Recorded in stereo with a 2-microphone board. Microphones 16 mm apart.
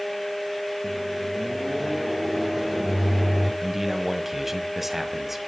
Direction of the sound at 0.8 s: 15° right (ahead or behind).